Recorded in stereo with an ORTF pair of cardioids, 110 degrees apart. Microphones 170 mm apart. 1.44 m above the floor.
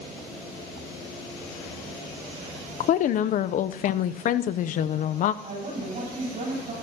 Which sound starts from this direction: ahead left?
A woman speaking, at 2.8 s.